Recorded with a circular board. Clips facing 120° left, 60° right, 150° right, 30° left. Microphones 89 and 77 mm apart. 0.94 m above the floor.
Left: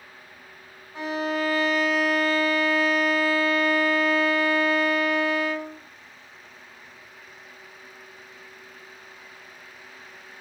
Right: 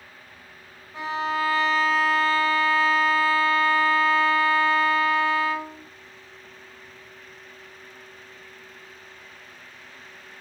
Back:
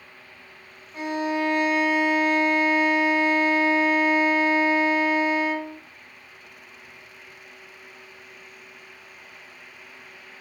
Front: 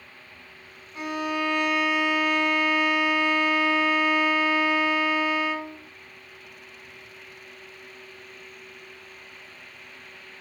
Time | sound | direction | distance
0.9 | a violin | 120° right | 2.5 m